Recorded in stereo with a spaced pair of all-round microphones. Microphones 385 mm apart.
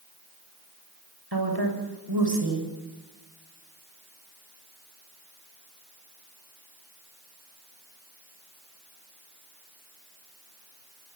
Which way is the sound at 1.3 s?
70° right (ahead or behind).